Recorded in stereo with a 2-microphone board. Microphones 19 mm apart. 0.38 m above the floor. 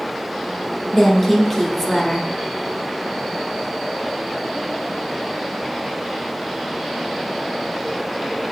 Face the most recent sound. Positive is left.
turn(degrees=10)  # may be behind; listen again after turning